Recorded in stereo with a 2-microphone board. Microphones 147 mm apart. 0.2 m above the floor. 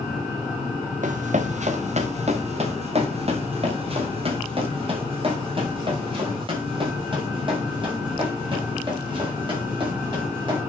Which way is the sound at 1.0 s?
60° right (ahead or behind).